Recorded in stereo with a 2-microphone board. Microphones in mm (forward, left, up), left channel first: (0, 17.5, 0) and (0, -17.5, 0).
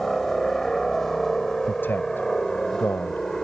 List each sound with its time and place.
0.0 s a helicopter: 10° left (ahead or behind); by 3.4 s 15° left (ahead or behind)
1.6 s a man speaking: 75° left (ahead or behind)